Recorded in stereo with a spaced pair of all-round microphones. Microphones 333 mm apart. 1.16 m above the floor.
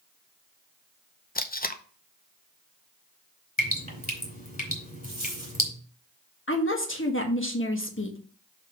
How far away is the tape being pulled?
About 0.6 m.